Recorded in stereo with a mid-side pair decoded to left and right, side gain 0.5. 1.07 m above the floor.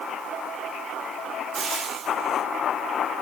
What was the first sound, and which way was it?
Frying, 45° right.